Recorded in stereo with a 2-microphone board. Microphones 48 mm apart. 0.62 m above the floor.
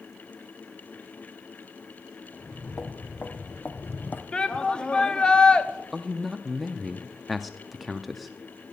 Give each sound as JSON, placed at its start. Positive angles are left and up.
{"t": 2.3, "sound": "footsteps", "side_deg": 30, "distance_m": 3.0}
{"t": 4.3, "sound": "a shout", "side_deg": 20, "distance_m": 0.9}
{"t": 5.9, "sound": "a man speaking", "side_deg": -5, "distance_m": 0.5}